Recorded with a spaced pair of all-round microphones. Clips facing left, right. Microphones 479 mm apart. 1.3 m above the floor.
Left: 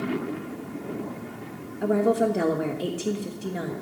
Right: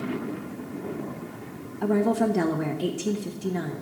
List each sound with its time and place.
1.8 s a woman speaking: 15° right (ahead or behind), 1.3 m